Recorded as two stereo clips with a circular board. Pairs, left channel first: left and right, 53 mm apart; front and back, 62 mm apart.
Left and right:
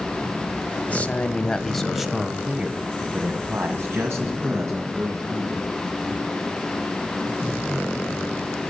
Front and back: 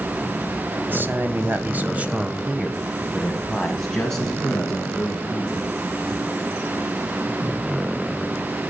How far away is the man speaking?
About 1.5 m.